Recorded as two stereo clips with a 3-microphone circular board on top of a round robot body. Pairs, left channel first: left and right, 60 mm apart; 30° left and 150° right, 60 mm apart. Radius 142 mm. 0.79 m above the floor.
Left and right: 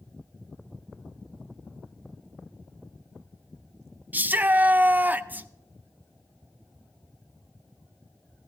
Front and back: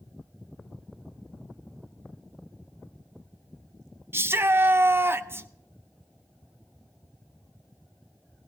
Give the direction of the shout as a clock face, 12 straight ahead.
4 o'clock.